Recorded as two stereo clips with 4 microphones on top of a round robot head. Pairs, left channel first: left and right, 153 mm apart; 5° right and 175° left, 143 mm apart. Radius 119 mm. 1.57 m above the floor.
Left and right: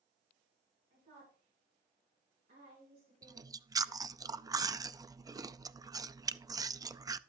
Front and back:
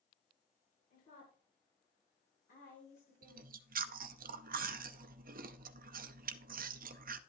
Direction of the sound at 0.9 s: 55° right.